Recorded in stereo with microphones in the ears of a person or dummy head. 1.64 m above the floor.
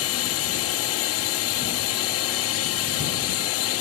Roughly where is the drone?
Left.